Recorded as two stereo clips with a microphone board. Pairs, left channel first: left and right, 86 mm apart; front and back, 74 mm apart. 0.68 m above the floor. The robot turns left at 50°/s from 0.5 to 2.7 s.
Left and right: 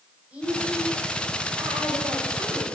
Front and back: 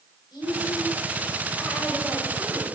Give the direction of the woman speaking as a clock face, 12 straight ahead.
12 o'clock.